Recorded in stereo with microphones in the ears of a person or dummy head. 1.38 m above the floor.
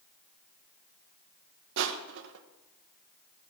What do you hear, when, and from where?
1.8 s crushing: 70° right (ahead or behind), 1.1 m